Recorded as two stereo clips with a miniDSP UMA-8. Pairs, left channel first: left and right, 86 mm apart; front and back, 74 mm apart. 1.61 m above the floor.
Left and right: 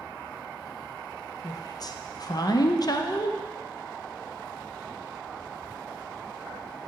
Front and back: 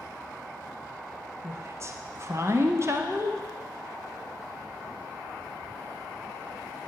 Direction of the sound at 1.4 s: 130° left.